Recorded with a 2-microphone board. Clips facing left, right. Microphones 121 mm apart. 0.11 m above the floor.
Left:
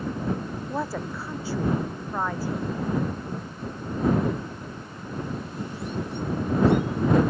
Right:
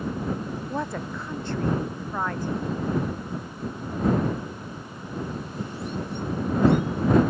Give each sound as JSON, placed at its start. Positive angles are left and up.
{"t": 0.7, "sound": "a woman speaking", "side_deg": 5}